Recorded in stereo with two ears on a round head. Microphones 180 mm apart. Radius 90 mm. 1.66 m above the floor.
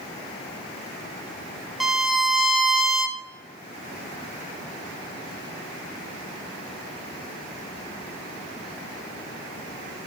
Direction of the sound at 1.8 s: Centre (ahead or behind).